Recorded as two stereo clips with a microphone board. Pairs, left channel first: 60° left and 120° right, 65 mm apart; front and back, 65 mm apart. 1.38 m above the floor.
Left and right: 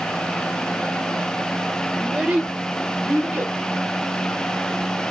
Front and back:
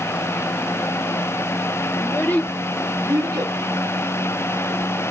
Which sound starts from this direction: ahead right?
A child speaking, at 2.0 s.